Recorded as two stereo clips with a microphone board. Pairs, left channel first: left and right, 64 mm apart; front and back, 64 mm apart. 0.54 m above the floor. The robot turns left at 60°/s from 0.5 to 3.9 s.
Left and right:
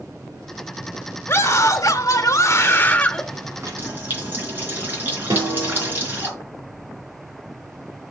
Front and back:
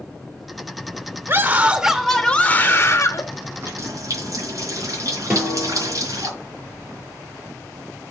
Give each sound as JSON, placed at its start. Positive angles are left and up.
{"t": 1.3, "sound": "a scream", "azimuth_deg": 135, "distance_m": 1.4}
{"t": 3.5, "sound": "a running tap", "azimuth_deg": -125, "distance_m": 4.5}
{"t": 5.3, "sound": "a snare drum", "azimuth_deg": -110, "distance_m": 4.0}